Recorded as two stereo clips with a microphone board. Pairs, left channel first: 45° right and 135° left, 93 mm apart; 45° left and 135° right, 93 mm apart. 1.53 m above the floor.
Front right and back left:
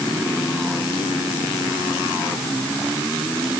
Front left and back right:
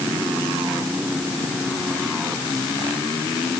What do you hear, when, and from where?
Only background noise.